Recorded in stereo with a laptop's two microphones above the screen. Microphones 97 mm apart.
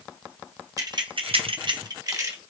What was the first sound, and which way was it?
Keys jangling, 35° right (ahead or behind).